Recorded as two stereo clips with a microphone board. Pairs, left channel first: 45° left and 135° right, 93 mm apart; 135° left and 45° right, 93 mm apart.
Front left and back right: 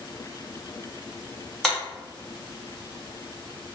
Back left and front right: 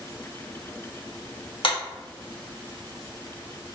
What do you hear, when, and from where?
1.6 s a clap: 135° left, 1.2 m